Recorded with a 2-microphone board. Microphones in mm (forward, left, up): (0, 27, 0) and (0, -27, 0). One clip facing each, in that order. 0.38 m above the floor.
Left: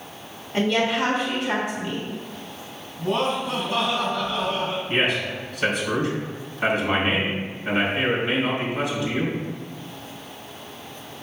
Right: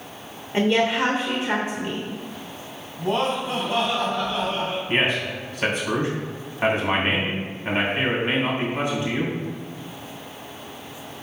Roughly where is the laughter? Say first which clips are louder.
Even; right.